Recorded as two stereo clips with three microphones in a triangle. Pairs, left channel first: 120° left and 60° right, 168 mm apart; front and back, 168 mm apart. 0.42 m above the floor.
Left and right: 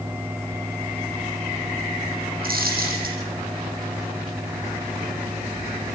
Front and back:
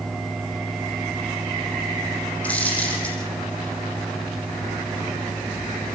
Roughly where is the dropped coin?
Right.